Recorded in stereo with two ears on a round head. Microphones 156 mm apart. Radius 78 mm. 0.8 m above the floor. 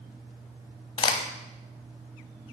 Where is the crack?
30° left (ahead or behind), 0.9 m.